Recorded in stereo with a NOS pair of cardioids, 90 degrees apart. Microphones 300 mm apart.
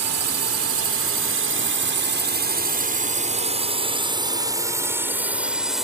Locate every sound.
0.0 s a drone: 55° right; by 5.8 s straight ahead